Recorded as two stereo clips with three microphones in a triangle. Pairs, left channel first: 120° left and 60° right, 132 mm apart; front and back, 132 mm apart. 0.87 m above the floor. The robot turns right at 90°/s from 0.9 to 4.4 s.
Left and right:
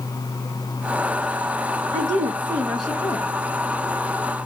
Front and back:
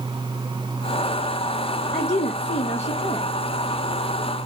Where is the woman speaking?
50° right, 0.6 m; by 3.3 s 75° left, 0.6 m.